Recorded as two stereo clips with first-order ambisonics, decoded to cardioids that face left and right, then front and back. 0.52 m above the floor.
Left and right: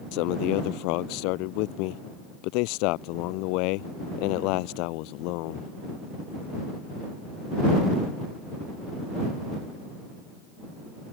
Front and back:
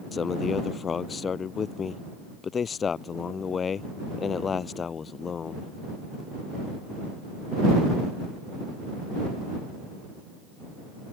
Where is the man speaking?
70° left.